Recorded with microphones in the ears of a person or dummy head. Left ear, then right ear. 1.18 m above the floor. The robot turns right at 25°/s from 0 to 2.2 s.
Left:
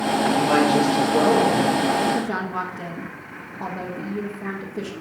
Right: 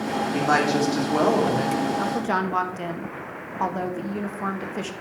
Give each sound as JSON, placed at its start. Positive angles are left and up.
{"t": 0.3, "sound": "a woman speaking", "azimuth_deg": -110, "distance_m": 3.0}
{"t": 2.0, "sound": "a woman speaking", "side_deg": -45, "distance_m": 1.4}